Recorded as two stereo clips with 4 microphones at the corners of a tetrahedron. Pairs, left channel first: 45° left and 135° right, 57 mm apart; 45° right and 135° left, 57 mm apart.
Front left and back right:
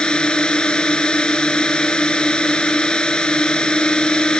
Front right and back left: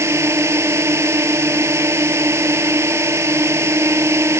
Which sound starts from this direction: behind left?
A drone, at 0.0 s.